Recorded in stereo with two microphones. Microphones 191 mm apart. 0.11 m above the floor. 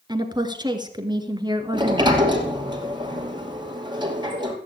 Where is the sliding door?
25° right (ahead or behind), 2.5 m.